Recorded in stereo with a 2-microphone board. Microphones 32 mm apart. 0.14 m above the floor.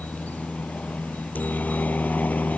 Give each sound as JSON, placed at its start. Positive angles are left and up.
{"t": 0.0, "sound": "a helicopter", "side_deg": 60}